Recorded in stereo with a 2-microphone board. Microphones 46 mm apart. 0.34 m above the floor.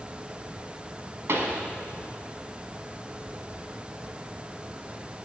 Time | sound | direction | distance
1.3 | a pop | 65° right (ahead or behind) | 0.8 m